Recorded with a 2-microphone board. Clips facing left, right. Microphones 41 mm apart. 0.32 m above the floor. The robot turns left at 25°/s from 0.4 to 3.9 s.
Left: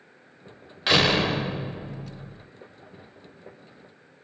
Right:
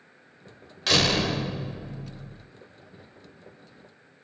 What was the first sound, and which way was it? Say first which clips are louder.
A door slam: left 3 dB; 20° left (ahead or behind).